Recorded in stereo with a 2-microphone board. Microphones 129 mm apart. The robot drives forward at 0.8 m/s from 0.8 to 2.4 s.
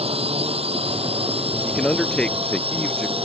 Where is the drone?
50° right (ahead or behind); by 3.2 s 45° right (ahead or behind).